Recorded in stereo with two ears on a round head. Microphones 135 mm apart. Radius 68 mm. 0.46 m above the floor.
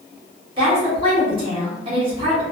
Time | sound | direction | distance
0.6 | a woman speaking | 35° right (ahead or behind) | 1.1 m